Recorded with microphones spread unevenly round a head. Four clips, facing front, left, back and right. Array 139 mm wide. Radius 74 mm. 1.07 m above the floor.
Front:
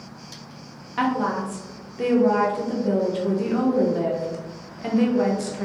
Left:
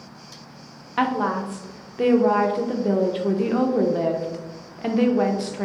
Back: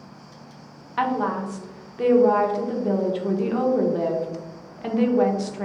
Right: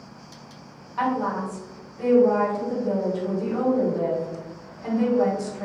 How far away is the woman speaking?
About 0.8 m.